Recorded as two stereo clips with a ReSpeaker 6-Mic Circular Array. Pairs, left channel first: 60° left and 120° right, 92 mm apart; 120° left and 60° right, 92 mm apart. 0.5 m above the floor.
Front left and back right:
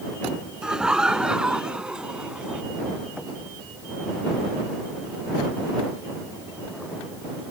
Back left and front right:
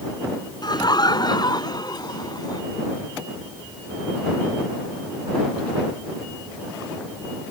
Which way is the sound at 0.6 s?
160° left.